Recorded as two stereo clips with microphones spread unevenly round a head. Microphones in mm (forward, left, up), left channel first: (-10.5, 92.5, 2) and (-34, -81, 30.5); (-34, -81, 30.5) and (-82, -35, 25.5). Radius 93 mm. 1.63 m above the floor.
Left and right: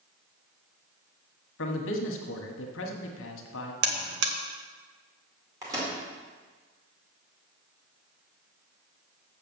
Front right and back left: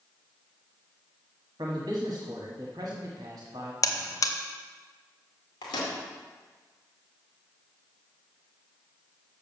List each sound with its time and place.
1.6 s a man speaking: 85° left, 1.5 m
3.8 s a buzzer: 70° right, 0.9 m
5.6 s a microwave: 25° right, 2 m